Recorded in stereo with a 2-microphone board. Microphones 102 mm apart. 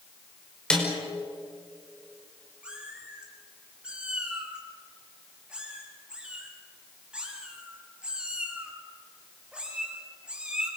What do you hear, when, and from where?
0.7 s a snare drum: 10° left (ahead or behind), 4.5 m
2.6 s a cat meowing: 10° right (ahead or behind), 4 m